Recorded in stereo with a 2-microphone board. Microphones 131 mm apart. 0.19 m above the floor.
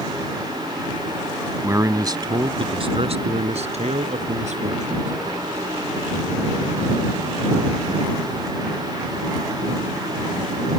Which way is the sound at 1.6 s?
20° right (ahead or behind).